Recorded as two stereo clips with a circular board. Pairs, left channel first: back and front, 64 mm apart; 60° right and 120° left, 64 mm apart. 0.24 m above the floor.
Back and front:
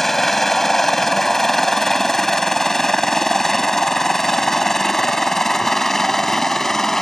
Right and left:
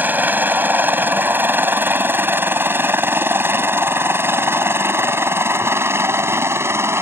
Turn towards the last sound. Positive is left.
turn(degrees=100)